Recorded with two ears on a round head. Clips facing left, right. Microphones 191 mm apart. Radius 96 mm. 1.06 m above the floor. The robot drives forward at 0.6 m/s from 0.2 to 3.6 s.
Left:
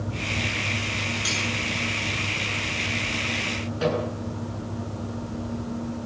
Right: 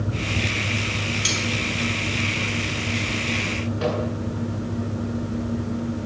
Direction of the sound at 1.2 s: 35° right (ahead or behind).